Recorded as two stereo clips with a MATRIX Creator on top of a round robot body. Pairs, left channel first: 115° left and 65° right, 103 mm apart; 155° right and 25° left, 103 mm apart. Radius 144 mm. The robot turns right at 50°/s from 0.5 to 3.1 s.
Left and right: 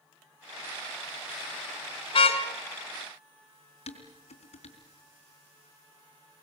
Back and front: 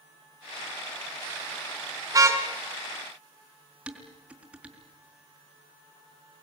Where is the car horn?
80° left, 2.5 m; by 2.4 s 95° left, 2.5 m.